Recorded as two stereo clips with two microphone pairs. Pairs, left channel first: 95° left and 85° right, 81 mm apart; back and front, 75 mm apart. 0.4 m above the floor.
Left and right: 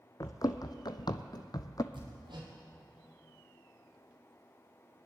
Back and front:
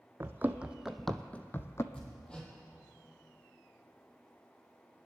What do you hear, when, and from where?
0.2 s running footsteps: 55° left, 0.8 m; by 1.8 s 135° left, 0.8 m
1.9 s hammering: 100° right, 3 m